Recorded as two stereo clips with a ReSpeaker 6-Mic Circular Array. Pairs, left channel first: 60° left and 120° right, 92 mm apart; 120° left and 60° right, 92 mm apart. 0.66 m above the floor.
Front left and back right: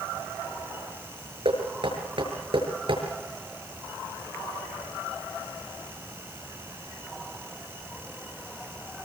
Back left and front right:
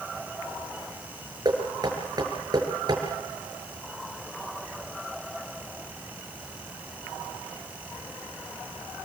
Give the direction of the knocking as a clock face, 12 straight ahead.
3 o'clock.